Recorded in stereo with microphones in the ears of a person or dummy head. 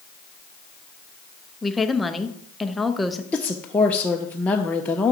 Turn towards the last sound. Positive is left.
turn(degrees=5)  # may be behind; listen again after turning